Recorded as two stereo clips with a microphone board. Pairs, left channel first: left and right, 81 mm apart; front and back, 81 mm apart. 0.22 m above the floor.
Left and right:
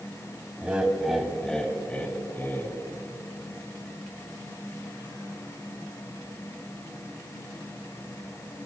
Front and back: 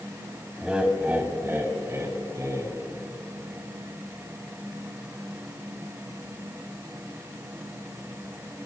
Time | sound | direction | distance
0.6 | laughter | 120° right | 1.4 m